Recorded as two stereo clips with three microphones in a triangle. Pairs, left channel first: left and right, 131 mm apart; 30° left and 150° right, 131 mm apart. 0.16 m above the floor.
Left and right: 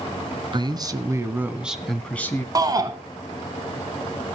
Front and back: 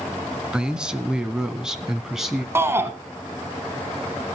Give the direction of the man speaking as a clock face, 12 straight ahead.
2 o'clock.